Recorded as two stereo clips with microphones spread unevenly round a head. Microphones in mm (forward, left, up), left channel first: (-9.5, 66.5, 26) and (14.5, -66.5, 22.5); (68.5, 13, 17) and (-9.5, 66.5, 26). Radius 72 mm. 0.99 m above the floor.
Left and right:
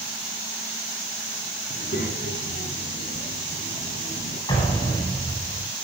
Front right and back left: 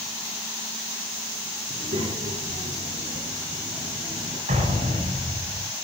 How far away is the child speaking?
About 10 m.